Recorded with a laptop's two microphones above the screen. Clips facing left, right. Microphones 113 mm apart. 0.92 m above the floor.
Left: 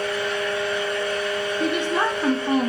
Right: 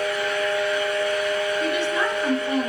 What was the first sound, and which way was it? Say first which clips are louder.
A fan: right 1 dB; 30° left (ahead or behind).